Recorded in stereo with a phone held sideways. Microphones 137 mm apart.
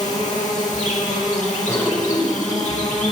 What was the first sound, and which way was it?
An insect, 60° left (ahead or behind).